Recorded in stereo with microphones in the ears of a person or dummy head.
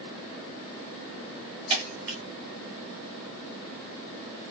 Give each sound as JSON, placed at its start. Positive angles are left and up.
{"t": 1.7, "sound": "breaking glass", "side_deg": -30, "distance_m": 1.0}